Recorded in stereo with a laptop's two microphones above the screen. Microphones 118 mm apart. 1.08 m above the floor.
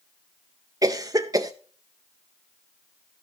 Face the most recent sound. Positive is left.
turn(degrees=-30)  # may be behind; listen again after turning